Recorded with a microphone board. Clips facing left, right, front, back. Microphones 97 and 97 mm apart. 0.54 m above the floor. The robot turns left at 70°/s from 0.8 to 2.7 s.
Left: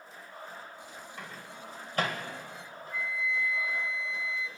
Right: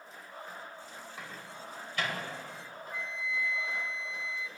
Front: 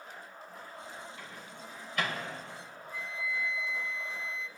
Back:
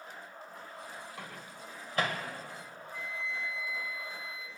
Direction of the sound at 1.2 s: 175° right.